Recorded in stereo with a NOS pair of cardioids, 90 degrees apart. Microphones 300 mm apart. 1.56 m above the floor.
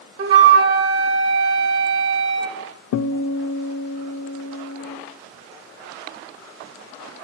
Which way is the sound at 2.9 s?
65° left.